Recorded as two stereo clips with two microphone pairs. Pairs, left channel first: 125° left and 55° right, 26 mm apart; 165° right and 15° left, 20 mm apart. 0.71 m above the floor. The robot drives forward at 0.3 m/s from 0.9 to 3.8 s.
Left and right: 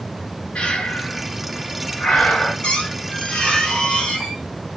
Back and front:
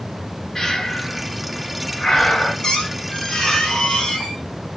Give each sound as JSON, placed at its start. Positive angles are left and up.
{"t": 0.6, "sound": "breathing", "azimuth_deg": 130, "distance_m": 0.9}
{"t": 2.6, "sound": "a squeak", "azimuth_deg": 150, "distance_m": 1.2}